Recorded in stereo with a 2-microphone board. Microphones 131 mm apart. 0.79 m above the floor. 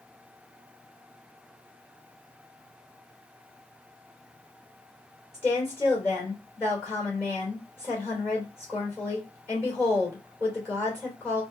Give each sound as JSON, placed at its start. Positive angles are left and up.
{"t": 5.3, "sound": "a woman speaking", "side_deg": 20, "distance_m": 2.5}